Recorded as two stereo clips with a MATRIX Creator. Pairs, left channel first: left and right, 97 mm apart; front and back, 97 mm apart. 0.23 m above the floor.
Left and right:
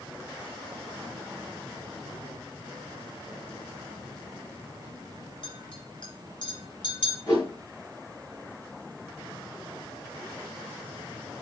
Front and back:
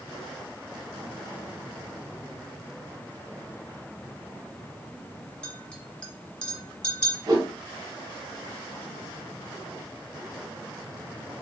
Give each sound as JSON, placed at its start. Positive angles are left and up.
{"t": 5.4, "sound": "a clink", "azimuth_deg": 75, "distance_m": 1.7}
{"t": 7.3, "sound": "a whoosh", "azimuth_deg": 140, "distance_m": 2.0}